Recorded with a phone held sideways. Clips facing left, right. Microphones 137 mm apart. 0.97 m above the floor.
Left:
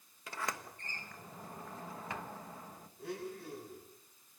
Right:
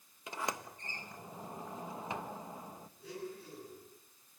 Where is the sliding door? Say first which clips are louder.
Right 2 dB; 20° right (ahead or behind), 1.2 m.